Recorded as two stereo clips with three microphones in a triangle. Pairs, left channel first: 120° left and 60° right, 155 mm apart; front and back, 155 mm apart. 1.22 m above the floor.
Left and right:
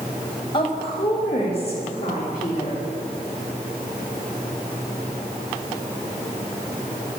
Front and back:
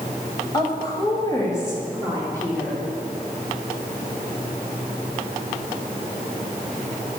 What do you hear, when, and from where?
0.5 s a woman speaking: 60° left, 1.5 m; by 2.8 s 75° left, 3 m